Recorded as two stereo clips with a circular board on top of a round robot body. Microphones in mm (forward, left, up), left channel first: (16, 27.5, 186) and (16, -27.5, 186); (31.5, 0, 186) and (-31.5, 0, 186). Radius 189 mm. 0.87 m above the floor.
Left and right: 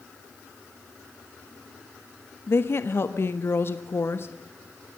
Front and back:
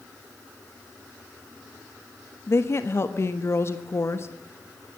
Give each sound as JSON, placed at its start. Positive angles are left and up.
{"t": 2.5, "sound": "a woman speaking", "azimuth_deg": 50, "distance_m": 1.5}